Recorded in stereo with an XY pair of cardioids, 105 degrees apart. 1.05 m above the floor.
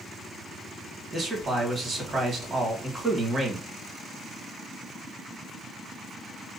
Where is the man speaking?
40° right, 1.6 m.